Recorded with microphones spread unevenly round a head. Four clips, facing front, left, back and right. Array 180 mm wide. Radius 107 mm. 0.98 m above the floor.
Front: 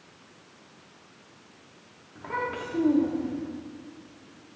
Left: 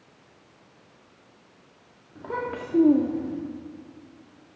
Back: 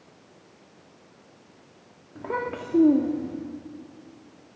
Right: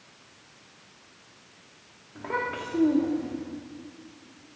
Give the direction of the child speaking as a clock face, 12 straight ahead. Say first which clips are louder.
Even, back 2 dB; 6 o'clock.